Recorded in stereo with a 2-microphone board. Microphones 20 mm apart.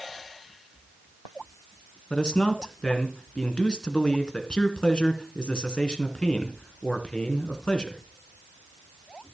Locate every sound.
2.1 s a man speaking: 45° left (ahead or behind), 2.5 m